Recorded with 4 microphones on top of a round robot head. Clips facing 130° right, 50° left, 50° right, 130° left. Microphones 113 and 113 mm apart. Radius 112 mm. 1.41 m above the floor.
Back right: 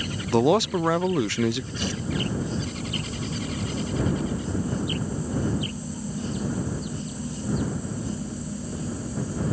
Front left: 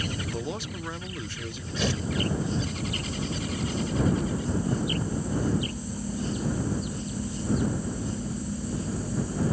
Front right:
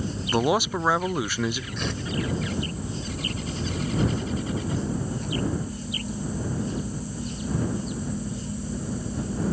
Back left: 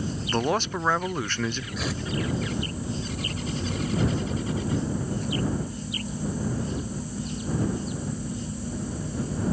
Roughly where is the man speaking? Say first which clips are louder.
Back right 14 dB, front right 3 dB; behind right.